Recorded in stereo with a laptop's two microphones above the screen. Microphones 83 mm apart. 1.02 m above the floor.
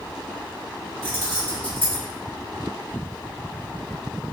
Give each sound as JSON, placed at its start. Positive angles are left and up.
{"t": 1.0, "sound": "keys jangling", "side_deg": -75, "distance_m": 1.6}